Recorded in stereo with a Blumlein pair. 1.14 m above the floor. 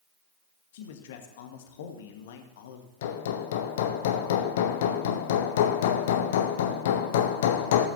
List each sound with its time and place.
0.7 s a man speaking: 55° left, 1.6 m
3.0 s hammering: 55° left, 1.0 m